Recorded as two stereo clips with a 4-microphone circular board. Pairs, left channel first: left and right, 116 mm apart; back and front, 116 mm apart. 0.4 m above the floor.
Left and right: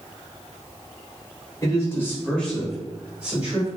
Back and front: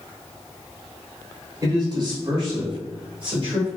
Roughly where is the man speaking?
Ahead left.